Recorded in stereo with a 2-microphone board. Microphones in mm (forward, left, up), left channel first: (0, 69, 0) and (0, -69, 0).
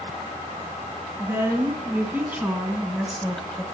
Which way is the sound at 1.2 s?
15° right (ahead or behind).